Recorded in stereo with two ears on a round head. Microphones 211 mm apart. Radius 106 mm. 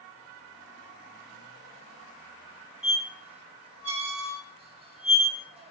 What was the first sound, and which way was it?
A squeak, 25° right (ahead or behind).